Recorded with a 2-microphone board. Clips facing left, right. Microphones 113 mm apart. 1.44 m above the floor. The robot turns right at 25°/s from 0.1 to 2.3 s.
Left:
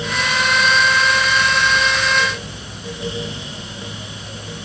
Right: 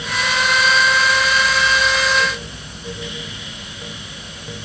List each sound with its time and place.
Only background noise.